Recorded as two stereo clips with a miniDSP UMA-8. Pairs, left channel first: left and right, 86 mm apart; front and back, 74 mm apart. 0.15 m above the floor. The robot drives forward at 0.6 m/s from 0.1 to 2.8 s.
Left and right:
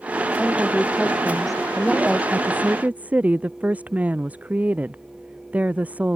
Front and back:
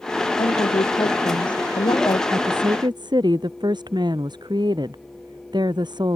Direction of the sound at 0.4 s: Straight ahead.